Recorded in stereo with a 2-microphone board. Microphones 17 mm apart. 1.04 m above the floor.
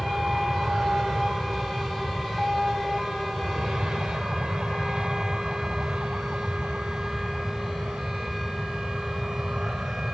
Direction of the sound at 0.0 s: 70° right (ahead or behind).